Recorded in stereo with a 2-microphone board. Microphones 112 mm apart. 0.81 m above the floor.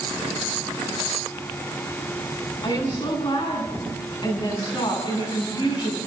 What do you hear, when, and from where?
2.6 s a woman speaking: 45° left (ahead or behind), 9 m